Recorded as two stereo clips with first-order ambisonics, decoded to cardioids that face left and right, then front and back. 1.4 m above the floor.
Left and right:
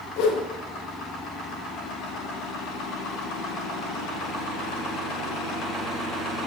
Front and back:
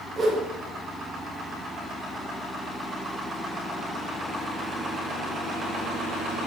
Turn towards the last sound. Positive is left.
turn(degrees=110)